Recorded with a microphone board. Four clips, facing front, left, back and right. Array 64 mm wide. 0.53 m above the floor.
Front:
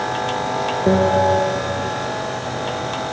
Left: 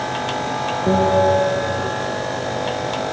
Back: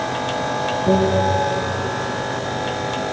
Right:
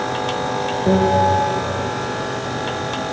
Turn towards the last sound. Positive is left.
turn(degrees=0)